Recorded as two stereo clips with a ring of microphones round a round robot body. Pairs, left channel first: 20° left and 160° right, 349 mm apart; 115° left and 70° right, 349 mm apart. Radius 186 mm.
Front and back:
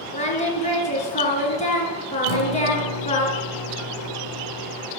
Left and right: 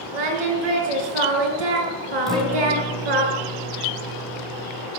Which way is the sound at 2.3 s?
25° left.